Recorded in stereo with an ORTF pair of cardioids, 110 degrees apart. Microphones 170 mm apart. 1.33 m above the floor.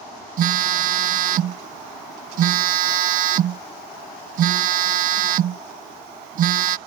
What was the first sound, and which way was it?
A phone buzzing, 55° right.